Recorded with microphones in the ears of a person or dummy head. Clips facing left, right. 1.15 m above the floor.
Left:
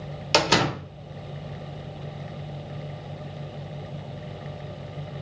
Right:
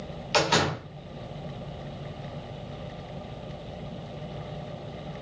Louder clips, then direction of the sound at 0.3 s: Left 2 dB; 65° left (ahead or behind).